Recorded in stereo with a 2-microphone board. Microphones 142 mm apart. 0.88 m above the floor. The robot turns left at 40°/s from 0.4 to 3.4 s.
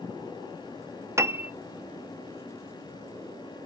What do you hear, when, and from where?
1.2 s a piano: 20° right (ahead or behind), 0.6 m; by 1.5 s 10° right (ahead or behind), 0.6 m